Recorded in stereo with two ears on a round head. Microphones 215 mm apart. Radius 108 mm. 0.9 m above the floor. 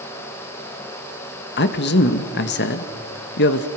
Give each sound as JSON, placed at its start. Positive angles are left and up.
{"t": 1.6, "sound": "a man speaking", "side_deg": 45, "distance_m": 1.2}